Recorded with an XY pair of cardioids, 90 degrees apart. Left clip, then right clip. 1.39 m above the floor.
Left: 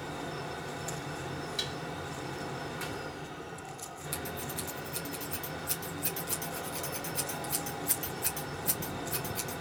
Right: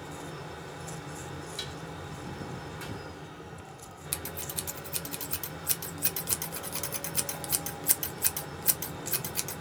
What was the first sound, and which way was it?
A fan, 30° left.